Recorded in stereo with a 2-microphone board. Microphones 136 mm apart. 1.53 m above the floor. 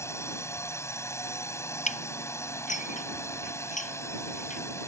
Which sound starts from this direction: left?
Dishes clattering, at 1.9 s.